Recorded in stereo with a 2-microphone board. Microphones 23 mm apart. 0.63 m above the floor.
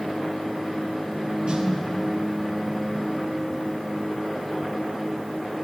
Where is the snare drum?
55° right (ahead or behind), 1.0 m.